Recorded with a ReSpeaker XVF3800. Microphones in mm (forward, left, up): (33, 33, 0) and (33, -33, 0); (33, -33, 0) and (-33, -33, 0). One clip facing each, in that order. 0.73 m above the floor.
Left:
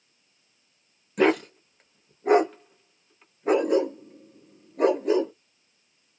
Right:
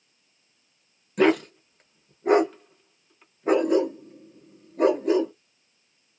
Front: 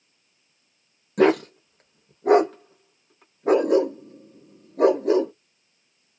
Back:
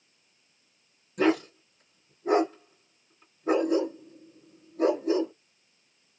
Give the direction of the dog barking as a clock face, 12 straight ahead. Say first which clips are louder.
Right 1 dB, front 6 dB; 12 o'clock.